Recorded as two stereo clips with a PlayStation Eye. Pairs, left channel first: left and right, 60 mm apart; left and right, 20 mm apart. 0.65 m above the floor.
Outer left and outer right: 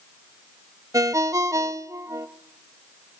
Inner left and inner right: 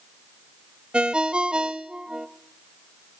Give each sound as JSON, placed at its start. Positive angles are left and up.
{"t": 0.9, "sound": "a ringtone", "side_deg": -60, "distance_m": 0.8}